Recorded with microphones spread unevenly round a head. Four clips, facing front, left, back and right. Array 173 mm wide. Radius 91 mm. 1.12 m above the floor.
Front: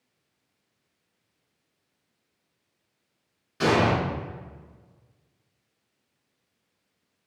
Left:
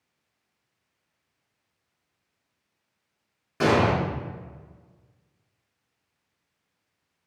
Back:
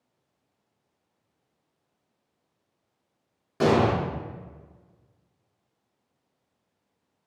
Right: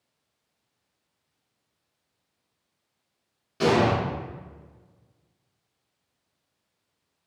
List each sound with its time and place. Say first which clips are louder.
3.6 s an explosion: even, back 1 dB; 165° left, 0.7 m